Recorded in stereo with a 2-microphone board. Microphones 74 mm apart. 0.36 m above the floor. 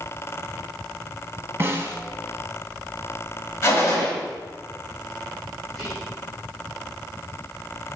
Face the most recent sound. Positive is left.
turn(degrees=5)  # may be behind; listen again after turning